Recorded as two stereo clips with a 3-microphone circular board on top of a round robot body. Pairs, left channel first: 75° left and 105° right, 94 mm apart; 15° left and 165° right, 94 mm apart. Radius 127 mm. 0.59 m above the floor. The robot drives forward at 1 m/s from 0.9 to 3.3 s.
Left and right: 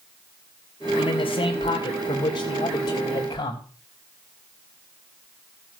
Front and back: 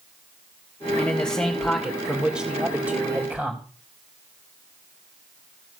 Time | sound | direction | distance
1.0 | a man speaking | 85° left | 3 m